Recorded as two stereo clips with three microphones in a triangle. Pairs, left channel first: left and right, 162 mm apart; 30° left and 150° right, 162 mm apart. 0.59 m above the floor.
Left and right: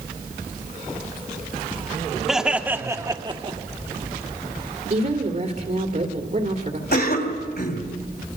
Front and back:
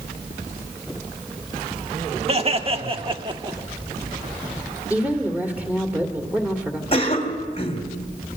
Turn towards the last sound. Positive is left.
turn(degrees=80)